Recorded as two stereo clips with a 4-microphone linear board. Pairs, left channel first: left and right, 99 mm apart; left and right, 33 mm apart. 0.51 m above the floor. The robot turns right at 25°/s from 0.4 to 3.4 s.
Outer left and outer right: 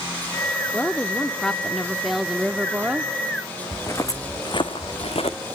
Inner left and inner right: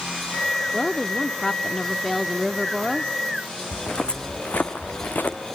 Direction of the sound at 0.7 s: 150° left.